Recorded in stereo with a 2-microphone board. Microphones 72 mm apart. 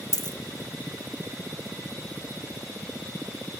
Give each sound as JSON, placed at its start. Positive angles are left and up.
{"t": 0.1, "sound": "a dropped coin", "side_deg": -35, "distance_m": 1.8}